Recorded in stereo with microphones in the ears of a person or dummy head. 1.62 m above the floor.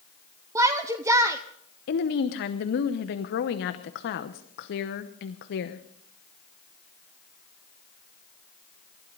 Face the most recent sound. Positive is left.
turn(degrees=60)  # may be behind; listen again after turning